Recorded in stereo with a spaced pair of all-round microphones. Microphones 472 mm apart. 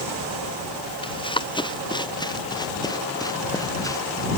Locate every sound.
1.0 s running footsteps: 10° left (ahead or behind); by 4.3 s 5° left (ahead or behind)